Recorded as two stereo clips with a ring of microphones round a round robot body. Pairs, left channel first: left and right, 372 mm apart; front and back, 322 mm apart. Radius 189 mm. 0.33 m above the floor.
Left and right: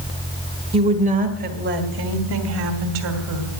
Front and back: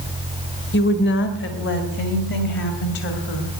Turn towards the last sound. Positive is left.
turn(degrees=-55)